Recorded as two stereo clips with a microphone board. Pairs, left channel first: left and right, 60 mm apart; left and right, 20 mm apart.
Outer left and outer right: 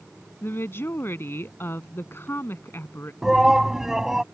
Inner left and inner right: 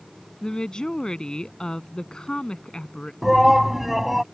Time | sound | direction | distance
0.4 | a woman speaking | 40° left (ahead or behind) | ?
3.2 | a shout | 10° right (ahead or behind) | ?